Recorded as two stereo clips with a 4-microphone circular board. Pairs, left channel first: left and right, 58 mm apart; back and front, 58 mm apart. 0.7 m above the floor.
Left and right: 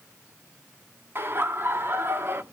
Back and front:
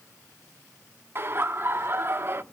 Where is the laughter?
45° right, 1.0 m.